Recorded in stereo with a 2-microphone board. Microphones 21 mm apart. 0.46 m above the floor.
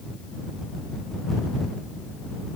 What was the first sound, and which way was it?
Only background noise.